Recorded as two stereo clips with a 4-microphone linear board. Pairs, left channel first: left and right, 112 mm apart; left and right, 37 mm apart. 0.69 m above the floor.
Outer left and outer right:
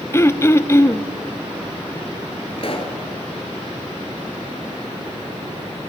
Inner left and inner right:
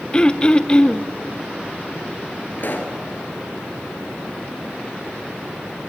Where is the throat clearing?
25° left (ahead or behind), 0.6 m.